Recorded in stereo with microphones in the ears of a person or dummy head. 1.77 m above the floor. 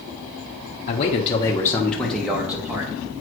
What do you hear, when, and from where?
0.9 s a man speaking: 40° left (ahead or behind), 1.0 m; by 2.9 s 15° right (ahead or behind), 1.8 m